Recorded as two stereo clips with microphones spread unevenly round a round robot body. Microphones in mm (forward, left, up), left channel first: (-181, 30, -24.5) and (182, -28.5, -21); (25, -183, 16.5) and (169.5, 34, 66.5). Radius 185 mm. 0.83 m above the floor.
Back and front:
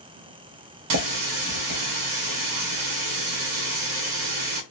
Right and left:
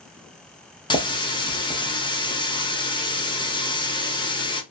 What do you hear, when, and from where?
0.9 s a running tap: 50° right, 0.9 m